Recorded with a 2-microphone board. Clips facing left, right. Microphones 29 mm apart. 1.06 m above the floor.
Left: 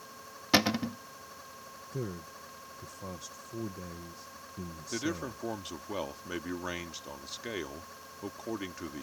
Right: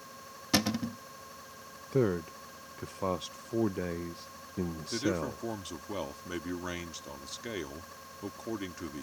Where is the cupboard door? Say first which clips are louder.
Left 3 dB; 25° left (ahead or behind).